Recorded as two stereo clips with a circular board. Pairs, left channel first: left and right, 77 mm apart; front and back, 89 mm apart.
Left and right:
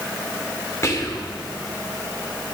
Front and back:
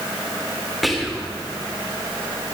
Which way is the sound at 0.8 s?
90° left.